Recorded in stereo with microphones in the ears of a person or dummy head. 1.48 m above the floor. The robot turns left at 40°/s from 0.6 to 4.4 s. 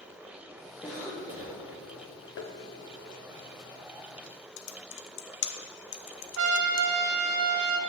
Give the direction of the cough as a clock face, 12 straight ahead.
12 o'clock.